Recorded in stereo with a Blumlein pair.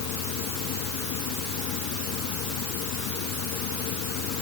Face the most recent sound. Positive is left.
turn(degrees=40)